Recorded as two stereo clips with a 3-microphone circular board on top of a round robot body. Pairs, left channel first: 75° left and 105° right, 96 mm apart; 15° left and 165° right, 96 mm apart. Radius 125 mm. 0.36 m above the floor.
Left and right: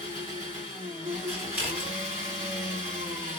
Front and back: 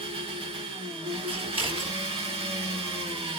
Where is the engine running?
160° right, 1.6 m.